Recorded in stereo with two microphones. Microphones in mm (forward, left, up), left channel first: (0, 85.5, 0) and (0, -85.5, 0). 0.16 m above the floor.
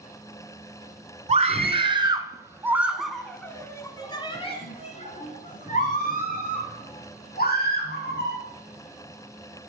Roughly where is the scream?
Right.